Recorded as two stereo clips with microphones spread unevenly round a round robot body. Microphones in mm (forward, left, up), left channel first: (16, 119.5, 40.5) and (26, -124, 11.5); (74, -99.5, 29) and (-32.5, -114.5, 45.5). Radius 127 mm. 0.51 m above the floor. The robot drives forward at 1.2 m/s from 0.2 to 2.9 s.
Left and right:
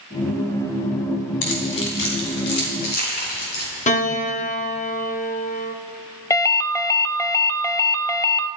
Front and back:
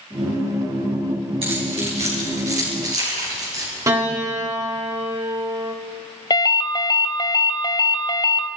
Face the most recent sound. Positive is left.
turn(degrees=10)